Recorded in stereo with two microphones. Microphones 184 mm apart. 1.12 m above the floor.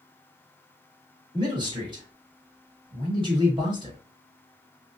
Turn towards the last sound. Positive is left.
turn(degrees=-25)  # may be behind; listen again after turning